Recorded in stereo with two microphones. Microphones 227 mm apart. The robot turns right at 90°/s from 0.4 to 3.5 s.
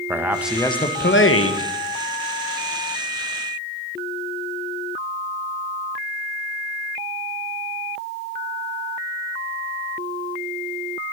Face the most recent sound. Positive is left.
turn(degrees=-90)